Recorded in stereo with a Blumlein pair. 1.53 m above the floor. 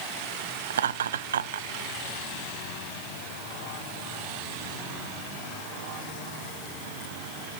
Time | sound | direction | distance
0.7 | laughter | 65° right | 0.9 m